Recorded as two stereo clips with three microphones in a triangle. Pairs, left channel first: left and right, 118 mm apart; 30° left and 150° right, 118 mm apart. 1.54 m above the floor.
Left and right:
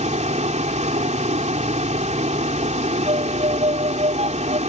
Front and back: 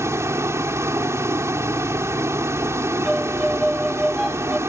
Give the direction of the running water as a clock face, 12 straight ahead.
3 o'clock.